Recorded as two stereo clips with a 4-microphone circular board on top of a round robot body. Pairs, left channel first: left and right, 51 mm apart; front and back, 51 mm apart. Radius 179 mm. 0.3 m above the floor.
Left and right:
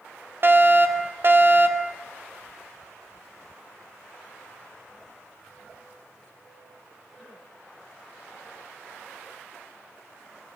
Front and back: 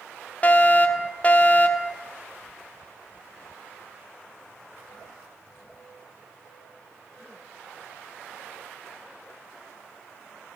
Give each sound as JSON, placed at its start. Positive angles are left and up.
{"t": 0.4, "sound": "a fire alarm", "azimuth_deg": -55, "distance_m": 3.5}